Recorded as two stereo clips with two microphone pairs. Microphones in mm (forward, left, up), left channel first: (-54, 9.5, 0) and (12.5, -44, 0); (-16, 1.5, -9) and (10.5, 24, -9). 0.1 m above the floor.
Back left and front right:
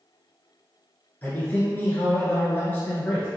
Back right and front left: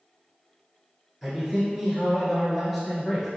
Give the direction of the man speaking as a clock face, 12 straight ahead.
8 o'clock.